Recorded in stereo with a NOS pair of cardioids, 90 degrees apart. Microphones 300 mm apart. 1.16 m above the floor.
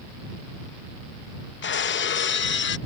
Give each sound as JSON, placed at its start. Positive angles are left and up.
{"t": 1.6, "sound": "breaking glass", "azimuth_deg": 40}